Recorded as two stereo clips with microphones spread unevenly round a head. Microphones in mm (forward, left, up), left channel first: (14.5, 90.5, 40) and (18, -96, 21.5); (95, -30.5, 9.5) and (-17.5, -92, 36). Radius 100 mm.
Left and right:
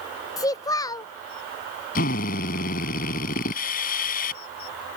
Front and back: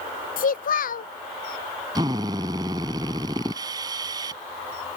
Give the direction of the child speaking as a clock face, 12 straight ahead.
11 o'clock.